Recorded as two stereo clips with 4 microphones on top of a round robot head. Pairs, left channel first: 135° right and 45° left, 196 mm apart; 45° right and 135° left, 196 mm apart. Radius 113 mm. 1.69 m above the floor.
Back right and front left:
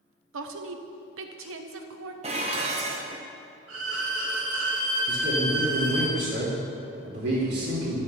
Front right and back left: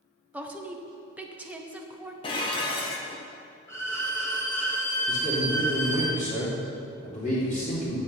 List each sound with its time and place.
0.3 s a woman speaking: 55° left, 1.1 m
2.2 s dishes clattering: 5° left, 0.8 m
3.7 s a violin: 35° left, 2 m
5.1 s a man speaking: 10° left, 3.5 m